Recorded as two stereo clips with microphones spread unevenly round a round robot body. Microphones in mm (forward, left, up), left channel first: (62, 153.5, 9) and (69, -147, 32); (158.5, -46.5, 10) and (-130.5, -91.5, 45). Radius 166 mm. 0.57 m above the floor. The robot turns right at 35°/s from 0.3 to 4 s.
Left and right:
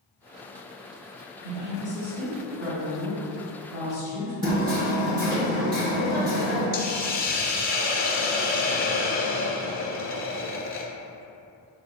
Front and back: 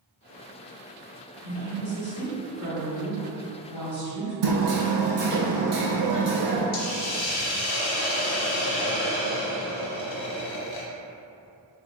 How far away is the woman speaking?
About 1.4 m.